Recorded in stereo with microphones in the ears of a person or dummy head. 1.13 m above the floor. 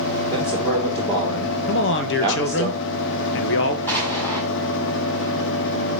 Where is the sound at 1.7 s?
55° left (ahead or behind), 1.1 m.